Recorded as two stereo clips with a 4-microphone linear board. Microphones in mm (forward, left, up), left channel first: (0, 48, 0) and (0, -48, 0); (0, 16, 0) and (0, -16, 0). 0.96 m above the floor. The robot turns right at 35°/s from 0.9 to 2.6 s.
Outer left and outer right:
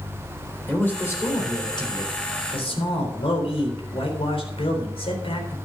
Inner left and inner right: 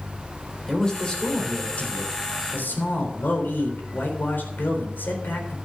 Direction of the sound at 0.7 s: 20° left.